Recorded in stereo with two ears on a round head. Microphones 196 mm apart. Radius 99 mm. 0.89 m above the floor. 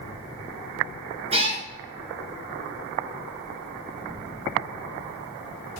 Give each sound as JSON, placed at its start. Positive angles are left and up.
{"t": 1.3, "sound": "a cat meowing", "side_deg": -30, "distance_m": 1.6}